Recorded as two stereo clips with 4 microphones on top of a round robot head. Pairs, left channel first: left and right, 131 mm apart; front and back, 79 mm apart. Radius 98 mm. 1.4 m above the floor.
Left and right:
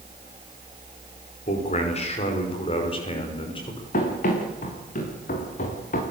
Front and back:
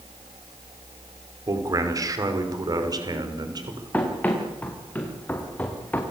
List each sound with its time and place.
1.5 s a man speaking: 135° left, 5 m; by 3.8 s 150° left, 6 m
3.9 s running footsteps: 70° left, 7 m